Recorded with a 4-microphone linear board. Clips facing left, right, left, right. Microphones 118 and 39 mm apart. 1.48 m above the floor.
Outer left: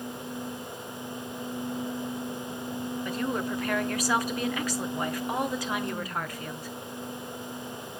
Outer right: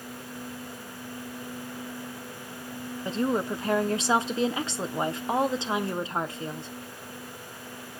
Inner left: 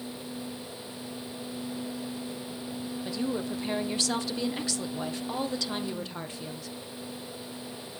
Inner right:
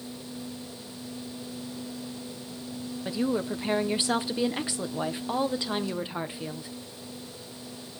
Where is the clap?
No clap in this recording.